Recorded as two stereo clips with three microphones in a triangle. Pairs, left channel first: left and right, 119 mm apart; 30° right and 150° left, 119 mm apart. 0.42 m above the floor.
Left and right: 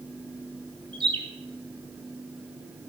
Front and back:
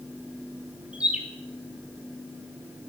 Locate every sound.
0.9 s a bird: 130° right, 2.5 m